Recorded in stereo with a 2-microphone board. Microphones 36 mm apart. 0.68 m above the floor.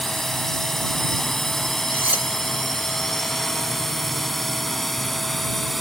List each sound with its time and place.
0.0 s a drone: 10° left (ahead or behind); by 5.8 s centre (ahead or behind)
1.9 s cutlery clinking: 75° right (ahead or behind)